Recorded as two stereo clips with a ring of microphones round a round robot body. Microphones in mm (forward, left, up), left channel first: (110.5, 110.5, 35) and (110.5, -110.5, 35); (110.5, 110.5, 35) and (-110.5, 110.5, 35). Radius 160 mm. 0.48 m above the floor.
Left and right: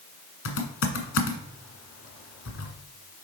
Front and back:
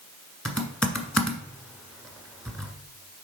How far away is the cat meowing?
No cat meowing in this recording.